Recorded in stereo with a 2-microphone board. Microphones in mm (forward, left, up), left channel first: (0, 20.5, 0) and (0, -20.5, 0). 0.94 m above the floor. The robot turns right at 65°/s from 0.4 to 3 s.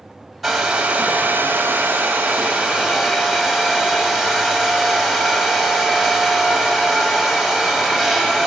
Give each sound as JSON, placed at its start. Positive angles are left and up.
{"t": 0.4, "sound": "a hair dryer", "azimuth_deg": 180, "distance_m": 1.8}